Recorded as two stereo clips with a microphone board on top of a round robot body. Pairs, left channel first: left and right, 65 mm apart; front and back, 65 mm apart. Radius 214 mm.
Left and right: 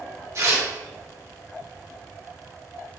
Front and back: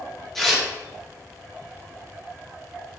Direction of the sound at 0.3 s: 85° right.